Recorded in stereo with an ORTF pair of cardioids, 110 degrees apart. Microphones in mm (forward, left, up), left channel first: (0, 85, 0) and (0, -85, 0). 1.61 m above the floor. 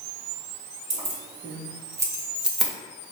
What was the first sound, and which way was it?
Keys jangling, 40° right.